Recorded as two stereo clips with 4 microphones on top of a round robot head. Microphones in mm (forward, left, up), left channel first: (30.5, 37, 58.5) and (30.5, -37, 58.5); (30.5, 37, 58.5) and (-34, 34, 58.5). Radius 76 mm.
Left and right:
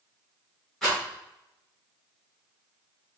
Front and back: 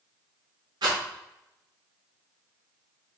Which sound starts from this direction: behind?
A rattle, at 0.8 s.